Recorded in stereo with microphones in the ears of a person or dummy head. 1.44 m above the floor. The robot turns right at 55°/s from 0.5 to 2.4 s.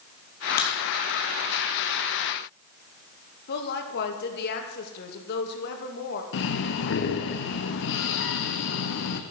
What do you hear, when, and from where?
0.6 s a crack: 45° left (ahead or behind), 2.5 m; by 0.8 s 35° left (ahead or behind), 2.5 m
3.5 s a woman speaking: 60° left (ahead or behind), 2 m
6.3 s breathing: 60° left (ahead or behind), 1.1 m